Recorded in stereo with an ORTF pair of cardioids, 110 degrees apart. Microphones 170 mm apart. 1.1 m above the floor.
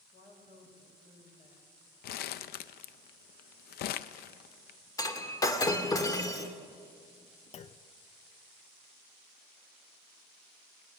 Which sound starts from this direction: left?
Crumpling, at 2.0 s.